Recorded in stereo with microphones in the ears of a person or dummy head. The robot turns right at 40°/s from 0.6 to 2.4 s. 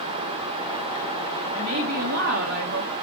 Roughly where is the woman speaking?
Behind right.